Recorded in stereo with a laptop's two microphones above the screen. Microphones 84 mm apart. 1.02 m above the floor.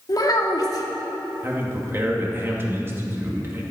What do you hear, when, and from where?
0.1 s a child speaking: 50° left (ahead or behind), 1.7 m
1.4 s a man speaking: 25° right (ahead or behind), 2 m